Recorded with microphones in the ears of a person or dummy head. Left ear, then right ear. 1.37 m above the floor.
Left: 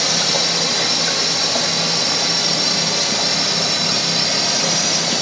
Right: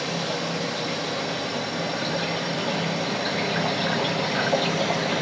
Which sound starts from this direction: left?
A drone, at 0.0 s.